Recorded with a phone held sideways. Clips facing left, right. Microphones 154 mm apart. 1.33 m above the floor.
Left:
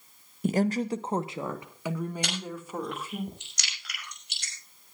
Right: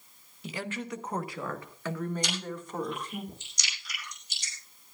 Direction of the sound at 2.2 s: 70° left (ahead or behind).